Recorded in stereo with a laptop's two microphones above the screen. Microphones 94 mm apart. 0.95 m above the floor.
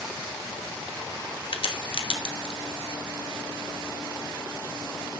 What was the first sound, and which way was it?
A crack, 70° left (ahead or behind).